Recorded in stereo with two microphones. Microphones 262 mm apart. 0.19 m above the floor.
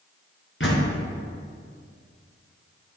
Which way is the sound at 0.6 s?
55° left (ahead or behind).